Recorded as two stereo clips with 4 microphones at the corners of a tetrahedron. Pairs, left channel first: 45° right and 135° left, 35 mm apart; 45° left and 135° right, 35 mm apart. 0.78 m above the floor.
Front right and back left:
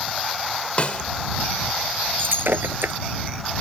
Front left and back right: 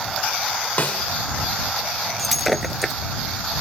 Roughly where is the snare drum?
Ahead.